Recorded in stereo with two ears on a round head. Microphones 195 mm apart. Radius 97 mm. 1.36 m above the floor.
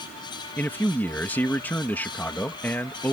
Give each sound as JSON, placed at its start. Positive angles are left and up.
{"t": 0.6, "sound": "a man speaking", "side_deg": 10}